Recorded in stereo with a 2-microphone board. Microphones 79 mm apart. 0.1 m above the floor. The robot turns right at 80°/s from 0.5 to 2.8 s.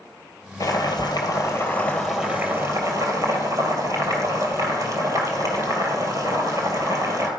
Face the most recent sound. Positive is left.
turn(degrees=-120)